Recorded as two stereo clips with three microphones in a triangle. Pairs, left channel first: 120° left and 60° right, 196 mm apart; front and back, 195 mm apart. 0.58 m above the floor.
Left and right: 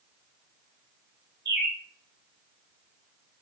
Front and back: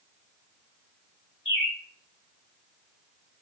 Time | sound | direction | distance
1.4 | a bird | 60° right | 1.7 m